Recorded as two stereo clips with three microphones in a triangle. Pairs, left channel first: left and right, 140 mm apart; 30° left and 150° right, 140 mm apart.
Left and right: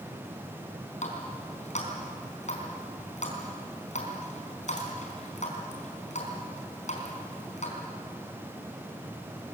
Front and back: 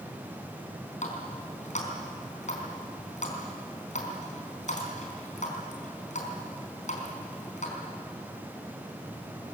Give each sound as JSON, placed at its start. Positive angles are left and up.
{"t": 1.0, "sound": "a running tap", "azimuth_deg": 60, "distance_m": 4.0}